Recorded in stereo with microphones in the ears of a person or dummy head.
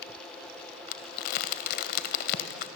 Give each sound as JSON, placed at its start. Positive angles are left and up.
{"t": 0.9, "sound": "crumpling", "side_deg": 45, "distance_m": 1.8}